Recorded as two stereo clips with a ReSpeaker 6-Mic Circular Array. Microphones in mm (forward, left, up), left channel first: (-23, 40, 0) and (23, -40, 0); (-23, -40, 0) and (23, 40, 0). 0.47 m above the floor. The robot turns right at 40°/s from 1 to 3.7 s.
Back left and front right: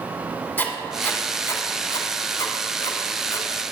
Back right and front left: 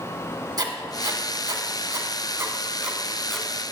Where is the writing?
60° left, 1.4 m; by 3.5 s 160° left, 1.4 m.